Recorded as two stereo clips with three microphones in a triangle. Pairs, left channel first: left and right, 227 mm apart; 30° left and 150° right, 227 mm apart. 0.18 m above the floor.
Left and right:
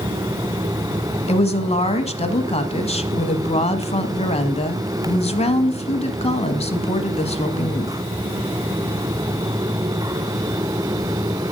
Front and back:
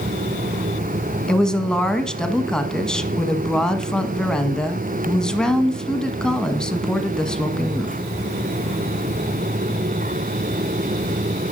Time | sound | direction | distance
1.3 | a woman speaking | 115° left | 1.1 m